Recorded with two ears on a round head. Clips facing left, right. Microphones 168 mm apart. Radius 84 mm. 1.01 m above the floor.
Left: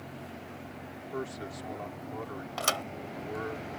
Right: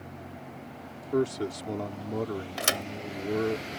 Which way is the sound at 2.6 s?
20° right (ahead or behind).